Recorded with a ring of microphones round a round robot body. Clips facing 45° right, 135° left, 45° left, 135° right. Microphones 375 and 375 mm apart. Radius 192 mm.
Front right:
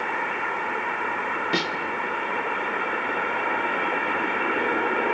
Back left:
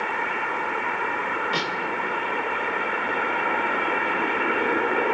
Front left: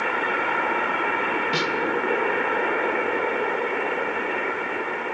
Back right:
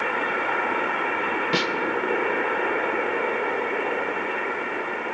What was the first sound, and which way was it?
A snare drum, 105° right.